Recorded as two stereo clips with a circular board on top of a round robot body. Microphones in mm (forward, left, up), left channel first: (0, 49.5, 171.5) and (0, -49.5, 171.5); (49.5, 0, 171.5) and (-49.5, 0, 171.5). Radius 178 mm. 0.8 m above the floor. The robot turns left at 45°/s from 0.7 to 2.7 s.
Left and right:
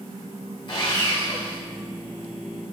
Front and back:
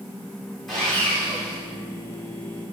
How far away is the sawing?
About 1.7 m.